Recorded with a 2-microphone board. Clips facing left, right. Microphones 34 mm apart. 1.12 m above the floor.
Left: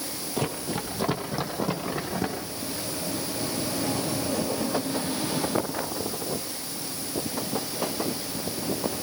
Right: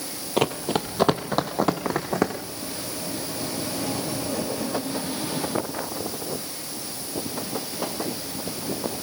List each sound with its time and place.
0.4 s running footsteps: 60° right (ahead or behind), 2 m